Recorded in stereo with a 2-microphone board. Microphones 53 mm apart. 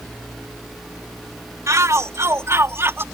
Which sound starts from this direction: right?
A shout, at 1.7 s.